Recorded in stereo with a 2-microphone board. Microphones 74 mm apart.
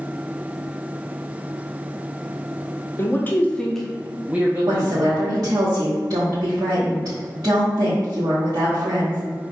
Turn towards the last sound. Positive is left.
turn(degrees=-55)  # may be behind; listen again after turning